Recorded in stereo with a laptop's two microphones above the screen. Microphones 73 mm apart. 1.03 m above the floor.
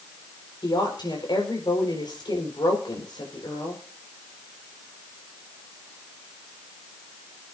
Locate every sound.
0.6 s a woman speaking: 80° left, 5.5 m